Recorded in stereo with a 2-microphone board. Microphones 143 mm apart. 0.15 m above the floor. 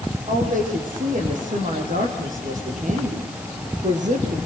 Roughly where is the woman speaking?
Right.